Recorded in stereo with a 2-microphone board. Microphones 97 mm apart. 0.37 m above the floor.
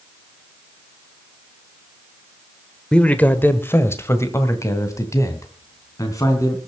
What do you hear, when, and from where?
2.9 s a man speaking: 10° left (ahead or behind), 1.0 m; by 6.6 s 35° left (ahead or behind), 3.5 m